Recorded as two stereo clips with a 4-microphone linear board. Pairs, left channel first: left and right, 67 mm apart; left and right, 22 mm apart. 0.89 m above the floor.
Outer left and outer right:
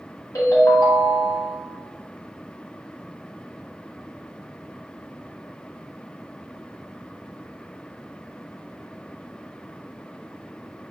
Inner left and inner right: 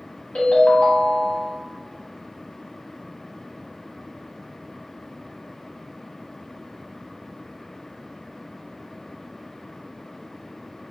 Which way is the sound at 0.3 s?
75° left (ahead or behind).